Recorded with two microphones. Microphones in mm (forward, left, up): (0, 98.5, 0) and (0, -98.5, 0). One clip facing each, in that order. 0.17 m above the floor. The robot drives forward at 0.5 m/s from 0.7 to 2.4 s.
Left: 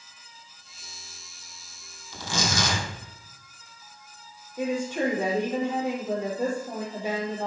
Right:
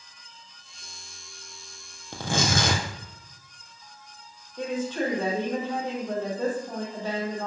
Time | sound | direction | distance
2.1 | tearing paper | 65° right (ahead or behind) | 2.5 m
4.6 | a woman speaking | 15° left (ahead or behind) | 4.5 m